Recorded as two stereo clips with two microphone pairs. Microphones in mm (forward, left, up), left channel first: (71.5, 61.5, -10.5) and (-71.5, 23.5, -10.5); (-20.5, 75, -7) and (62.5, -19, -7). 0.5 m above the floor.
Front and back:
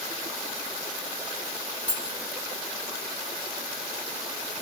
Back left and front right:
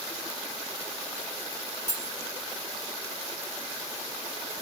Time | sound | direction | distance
1.9 | cutlery clinking | 115° right | 1.2 m